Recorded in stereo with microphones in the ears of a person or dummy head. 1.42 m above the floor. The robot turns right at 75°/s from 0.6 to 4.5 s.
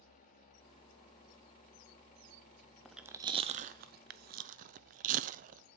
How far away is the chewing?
About 0.5 m.